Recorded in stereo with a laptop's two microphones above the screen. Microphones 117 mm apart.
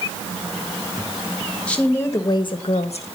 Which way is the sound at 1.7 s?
10° left (ahead or behind).